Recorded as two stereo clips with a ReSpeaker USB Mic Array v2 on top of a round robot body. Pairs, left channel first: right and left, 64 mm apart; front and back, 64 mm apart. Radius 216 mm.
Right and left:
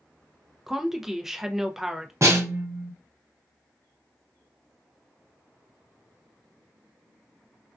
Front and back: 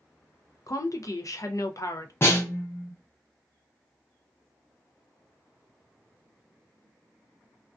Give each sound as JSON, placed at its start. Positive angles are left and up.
{"t": 0.7, "sound": "a woman speaking", "azimuth_deg": 5, "distance_m": 0.6}
{"t": 2.2, "sound": "a snare drum", "azimuth_deg": 50, "distance_m": 0.8}